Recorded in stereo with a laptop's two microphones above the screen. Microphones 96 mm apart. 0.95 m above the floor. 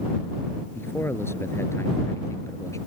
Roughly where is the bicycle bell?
No bicycle bell in this recording.